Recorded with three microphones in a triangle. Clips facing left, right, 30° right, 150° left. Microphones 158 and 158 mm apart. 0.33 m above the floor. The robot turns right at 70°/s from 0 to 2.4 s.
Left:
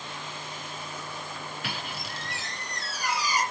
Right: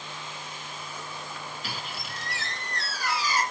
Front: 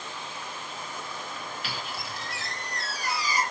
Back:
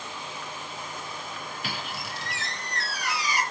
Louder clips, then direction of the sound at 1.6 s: Left 1 dB, back 1 dB; 110° left.